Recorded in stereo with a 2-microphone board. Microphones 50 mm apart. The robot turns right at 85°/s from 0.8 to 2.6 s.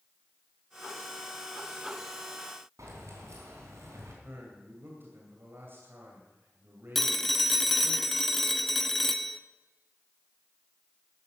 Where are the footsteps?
I don't hear footsteps.